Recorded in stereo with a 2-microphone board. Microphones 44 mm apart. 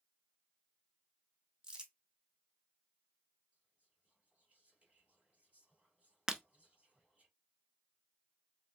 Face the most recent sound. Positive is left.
turn(degrees=-15)  # may be behind; listen again after turning